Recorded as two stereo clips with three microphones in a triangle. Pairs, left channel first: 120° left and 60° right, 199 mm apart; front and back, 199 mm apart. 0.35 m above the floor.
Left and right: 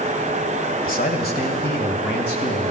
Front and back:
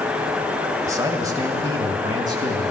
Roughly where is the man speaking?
Behind left.